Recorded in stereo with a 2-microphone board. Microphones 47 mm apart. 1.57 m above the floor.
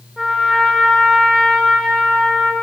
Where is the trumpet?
5° right (ahead or behind), 0.8 m.